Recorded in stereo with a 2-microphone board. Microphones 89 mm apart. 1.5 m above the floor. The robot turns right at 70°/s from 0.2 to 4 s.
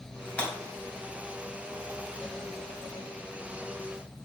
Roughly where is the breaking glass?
Centre.